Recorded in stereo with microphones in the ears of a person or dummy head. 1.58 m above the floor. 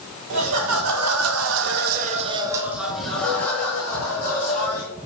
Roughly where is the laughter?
Right.